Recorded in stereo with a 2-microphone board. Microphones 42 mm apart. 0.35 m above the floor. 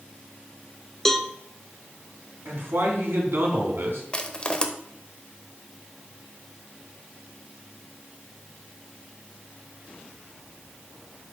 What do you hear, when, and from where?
1.1 s a cowbell: 10° left (ahead or behind), 0.6 m
2.5 s a man speaking: 70° right (ahead or behind), 3 m
4.1 s crushing: 25° left (ahead or behind), 0.9 m